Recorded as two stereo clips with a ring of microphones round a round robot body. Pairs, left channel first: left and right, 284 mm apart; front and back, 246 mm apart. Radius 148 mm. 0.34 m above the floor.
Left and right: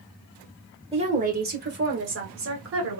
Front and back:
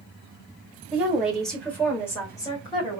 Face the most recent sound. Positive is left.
turn(degrees=-70)